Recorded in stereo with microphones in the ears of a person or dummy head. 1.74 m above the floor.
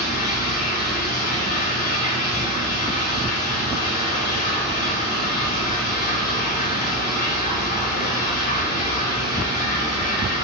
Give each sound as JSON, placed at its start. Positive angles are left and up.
{"t": 0.0, "sound": "running water", "side_deg": 50, "distance_m": 3.0}